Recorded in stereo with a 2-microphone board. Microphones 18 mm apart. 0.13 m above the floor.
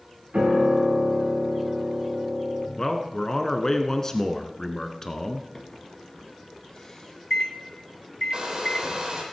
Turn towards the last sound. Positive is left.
turn(degrees=-45)  # may be behind; listen again after turning